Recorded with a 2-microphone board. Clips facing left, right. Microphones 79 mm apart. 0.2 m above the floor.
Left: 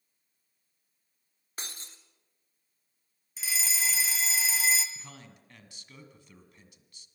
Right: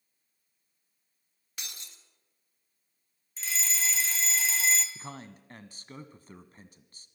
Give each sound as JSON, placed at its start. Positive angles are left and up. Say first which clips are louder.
{"t": 1.6, "sound": "breaking glass", "louder": "left 3 dB", "side_deg": 35, "distance_m": 1.9}
{"t": 3.4, "sound": "a fire alarm", "louder": "even", "side_deg": 5, "distance_m": 2.0}
{"t": 5.0, "sound": "a man speaking", "louder": "right 7 dB", "side_deg": -40, "distance_m": 1.4}